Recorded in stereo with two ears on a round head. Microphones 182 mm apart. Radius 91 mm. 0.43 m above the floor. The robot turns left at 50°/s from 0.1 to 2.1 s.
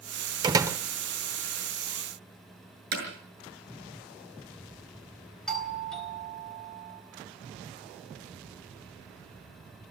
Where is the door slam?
25° right (ahead or behind), 1.1 m; by 0.8 s 10° right (ahead or behind), 1.1 m.